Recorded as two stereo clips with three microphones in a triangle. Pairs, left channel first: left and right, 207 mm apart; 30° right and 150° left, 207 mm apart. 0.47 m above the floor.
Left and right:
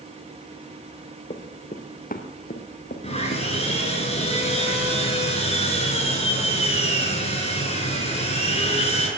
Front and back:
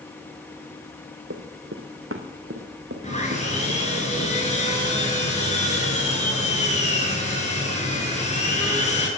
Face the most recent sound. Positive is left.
turn(degrees=30)